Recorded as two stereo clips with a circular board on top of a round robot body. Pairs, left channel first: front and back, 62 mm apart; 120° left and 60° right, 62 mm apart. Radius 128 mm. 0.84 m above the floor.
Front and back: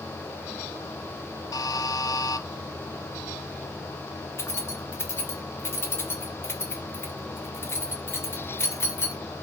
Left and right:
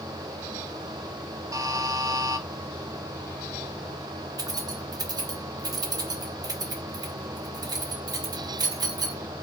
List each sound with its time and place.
1.5 s a buzzer: 25° right, 0.6 m
4.4 s keys jangling: 50° right, 1.6 m